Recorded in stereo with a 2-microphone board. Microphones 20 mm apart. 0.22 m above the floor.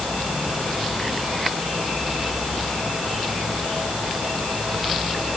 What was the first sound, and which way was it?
Only background noise.